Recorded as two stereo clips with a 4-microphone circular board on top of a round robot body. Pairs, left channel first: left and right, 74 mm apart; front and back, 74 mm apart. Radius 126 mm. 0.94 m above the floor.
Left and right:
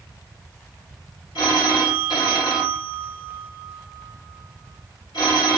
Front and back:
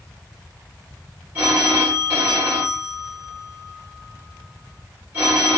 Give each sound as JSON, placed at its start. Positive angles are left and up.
{"t": 1.4, "sound": "a phone ringing", "azimuth_deg": 110, "distance_m": 2.0}